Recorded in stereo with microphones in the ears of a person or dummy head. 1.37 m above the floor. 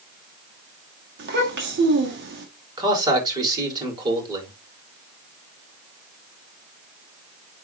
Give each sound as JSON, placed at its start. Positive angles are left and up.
{"t": 1.2, "sound": "a child speaking", "side_deg": -55, "distance_m": 2.0}
{"t": 2.8, "sound": "a man speaking", "side_deg": -25, "distance_m": 4.5}